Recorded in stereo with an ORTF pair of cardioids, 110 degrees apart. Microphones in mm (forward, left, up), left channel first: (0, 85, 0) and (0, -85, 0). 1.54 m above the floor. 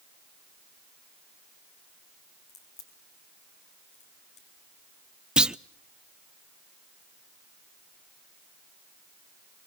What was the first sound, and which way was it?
A crack, 45° left.